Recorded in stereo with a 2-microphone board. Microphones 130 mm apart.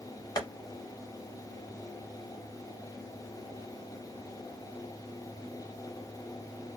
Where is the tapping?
30° left (ahead or behind), 1.2 m.